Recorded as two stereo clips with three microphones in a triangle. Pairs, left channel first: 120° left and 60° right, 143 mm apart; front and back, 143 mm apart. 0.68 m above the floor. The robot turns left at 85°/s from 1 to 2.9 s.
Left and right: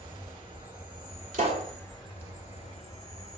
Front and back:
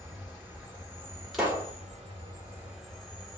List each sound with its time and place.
0.0 s an insect: 110° right, 2 m; by 3.4 s 85° left, 2 m
1.3 s a pop: 90° right, 1.5 m; by 1.7 s 125° right, 1.5 m